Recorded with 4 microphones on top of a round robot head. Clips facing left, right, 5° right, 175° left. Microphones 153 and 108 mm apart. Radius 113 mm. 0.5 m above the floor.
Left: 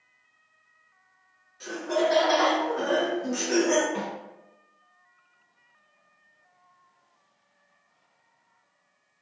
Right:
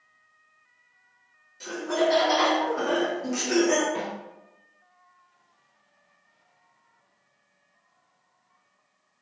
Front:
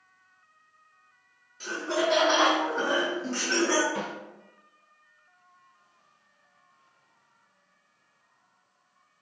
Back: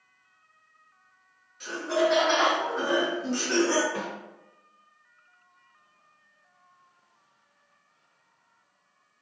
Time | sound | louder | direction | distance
1.6 | laughter | right 1 dB, back 2 dB | 15° right | 1.1 m
4.0 | a snare drum | right 1 dB, even | 165° left | 1.9 m